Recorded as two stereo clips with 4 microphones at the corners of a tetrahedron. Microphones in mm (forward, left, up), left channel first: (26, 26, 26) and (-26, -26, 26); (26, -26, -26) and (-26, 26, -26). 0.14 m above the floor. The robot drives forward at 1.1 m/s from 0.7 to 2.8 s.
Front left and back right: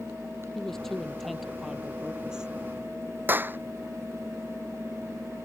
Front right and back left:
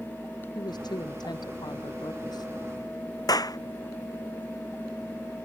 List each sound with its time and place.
0.6 s a woman speaking: 40° right; by 2.5 s 55° right
3.3 s a clap: 75° right